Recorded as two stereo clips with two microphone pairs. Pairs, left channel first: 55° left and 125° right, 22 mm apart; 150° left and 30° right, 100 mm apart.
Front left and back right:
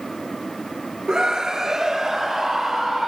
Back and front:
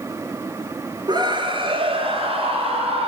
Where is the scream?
70° right, 2.5 m; by 3.1 s 45° right, 5 m.